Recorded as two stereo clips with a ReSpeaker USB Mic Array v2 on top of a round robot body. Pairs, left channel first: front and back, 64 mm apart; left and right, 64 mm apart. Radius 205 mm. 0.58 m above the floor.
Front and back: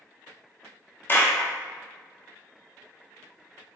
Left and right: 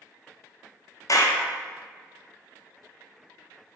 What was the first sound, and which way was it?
A clap, 55° left.